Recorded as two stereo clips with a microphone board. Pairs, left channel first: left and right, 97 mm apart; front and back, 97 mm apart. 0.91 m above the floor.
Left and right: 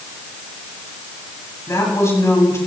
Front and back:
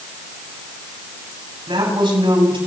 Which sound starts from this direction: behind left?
A woman speaking, at 1.7 s.